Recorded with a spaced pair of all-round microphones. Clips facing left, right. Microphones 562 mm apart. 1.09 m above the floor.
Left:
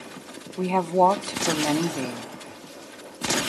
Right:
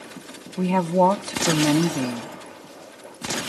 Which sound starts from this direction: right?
A woman speaking, at 0.6 s.